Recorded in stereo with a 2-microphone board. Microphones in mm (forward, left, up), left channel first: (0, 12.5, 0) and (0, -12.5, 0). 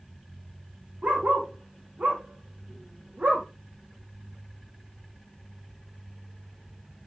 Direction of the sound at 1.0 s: 85° right.